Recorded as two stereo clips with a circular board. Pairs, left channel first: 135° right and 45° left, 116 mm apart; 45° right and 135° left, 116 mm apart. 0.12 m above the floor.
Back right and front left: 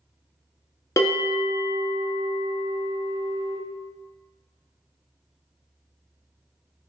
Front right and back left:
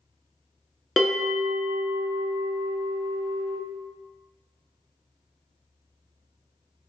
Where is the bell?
130° right, 1.1 m.